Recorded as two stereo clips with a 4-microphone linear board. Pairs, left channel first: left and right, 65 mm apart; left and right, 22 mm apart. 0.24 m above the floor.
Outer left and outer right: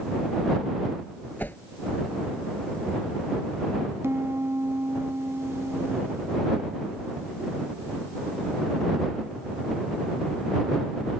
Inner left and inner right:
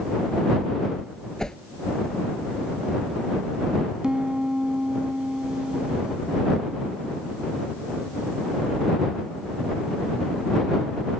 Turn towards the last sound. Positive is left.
turn(degrees=-40)  # may be behind; listen again after turning